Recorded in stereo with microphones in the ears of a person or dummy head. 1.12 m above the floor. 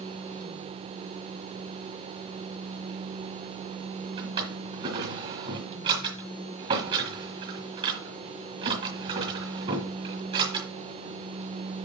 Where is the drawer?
30° right (ahead or behind), 2.5 m.